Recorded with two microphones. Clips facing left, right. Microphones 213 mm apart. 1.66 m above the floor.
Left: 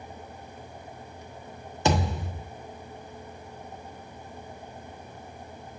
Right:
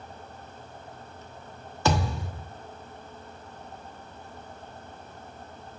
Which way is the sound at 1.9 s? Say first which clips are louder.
Left 1 dB; 20° left (ahead or behind).